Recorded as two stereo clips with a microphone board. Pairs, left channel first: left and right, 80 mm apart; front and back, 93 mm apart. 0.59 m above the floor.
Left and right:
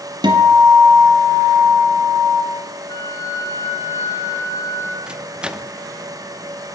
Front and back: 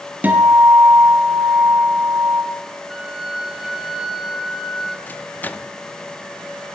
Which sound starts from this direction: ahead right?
A microwave, at 5.1 s.